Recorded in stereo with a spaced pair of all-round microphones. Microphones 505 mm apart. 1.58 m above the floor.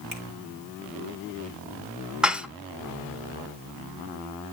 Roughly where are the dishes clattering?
Centre.